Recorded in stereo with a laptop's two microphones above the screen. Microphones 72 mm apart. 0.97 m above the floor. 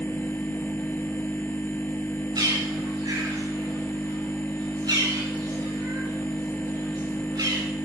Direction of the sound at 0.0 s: 30° left (ahead or behind).